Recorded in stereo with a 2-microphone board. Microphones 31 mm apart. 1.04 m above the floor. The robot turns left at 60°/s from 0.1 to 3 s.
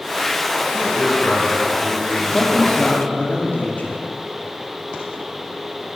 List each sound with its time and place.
0.7 s a man speaking: 165° left, 3.5 m; by 3.1 s 25° left, 3.5 m
2.2 s a man speaking: 175° left, 1.9 m; by 4.0 s 125° left, 1.9 m